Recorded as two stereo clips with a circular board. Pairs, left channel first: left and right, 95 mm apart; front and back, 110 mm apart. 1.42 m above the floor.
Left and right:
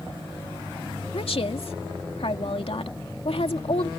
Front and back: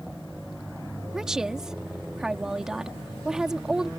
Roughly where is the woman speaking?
Left.